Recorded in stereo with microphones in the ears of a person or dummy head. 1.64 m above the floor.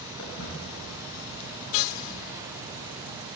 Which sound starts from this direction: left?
Footsteps, at 0.2 s.